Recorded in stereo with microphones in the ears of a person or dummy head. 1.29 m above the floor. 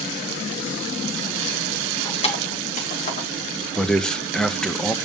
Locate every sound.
2.0 s keys jangling: 30° left (ahead or behind), 2 m; by 3.3 s 50° left (ahead or behind), 2 m
3.8 s a man speaking: 5° left (ahead or behind), 0.6 m